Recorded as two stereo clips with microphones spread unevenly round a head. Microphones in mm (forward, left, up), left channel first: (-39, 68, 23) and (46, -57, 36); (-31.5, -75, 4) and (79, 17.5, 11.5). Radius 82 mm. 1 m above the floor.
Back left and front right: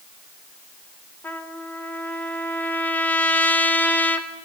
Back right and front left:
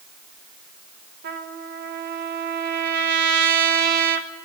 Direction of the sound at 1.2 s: 45° left.